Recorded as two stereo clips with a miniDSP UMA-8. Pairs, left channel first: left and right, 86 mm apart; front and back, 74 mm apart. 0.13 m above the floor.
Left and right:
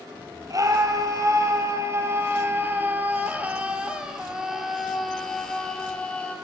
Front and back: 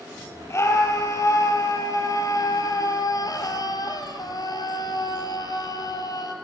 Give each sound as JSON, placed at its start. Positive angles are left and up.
{"t": 0.5, "sound": "a scream", "azimuth_deg": -50, "distance_m": 4.0}